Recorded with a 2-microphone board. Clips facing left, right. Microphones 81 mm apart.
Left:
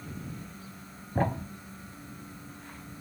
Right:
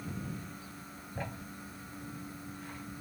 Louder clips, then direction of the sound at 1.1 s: Left 13 dB; 55° left (ahead or behind).